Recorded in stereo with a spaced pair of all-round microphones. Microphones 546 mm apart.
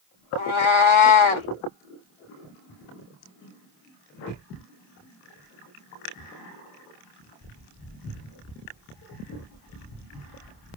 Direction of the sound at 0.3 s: 60° left (ahead or behind).